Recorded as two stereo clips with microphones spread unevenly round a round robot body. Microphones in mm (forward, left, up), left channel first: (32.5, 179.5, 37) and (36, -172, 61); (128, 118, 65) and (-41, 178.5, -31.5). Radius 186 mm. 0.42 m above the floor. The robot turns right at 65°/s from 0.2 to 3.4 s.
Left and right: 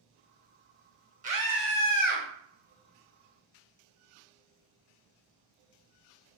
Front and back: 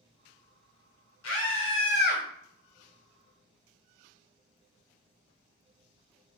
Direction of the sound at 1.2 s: 20° right.